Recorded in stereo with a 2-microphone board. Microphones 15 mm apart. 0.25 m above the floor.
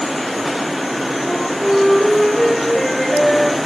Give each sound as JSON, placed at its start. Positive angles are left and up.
{"t": 1.2, "sound": "a flute", "side_deg": 15, "distance_m": 6.0}